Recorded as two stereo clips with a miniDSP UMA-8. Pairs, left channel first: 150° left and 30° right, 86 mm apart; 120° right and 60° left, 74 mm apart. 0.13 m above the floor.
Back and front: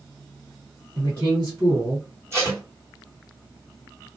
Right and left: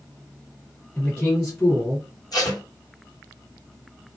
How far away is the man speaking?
About 1.8 m.